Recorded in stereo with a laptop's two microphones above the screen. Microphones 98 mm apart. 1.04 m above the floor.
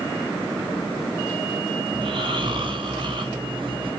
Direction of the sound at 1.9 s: 55° right (ahead or behind).